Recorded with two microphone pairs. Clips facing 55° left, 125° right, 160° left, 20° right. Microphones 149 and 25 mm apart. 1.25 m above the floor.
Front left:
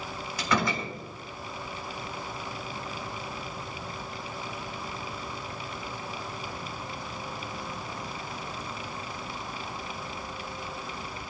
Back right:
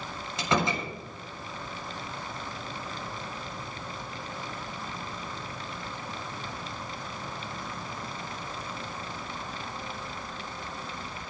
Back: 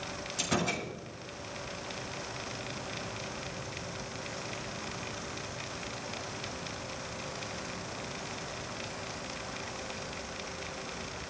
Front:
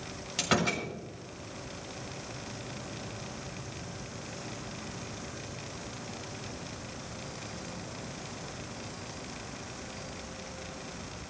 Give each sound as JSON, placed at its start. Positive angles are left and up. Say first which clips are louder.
{"t": 0.4, "sound": "a door slam", "louder": "back right 1 dB, front 3 dB", "azimuth_deg": -60, "distance_m": 4.0}